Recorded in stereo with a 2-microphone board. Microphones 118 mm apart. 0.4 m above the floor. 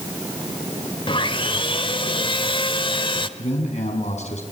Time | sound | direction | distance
1.1 | sawing | 45° left (ahead or behind) | 1.2 m
3.4 | a man speaking | 70° left (ahead or behind) | 4.5 m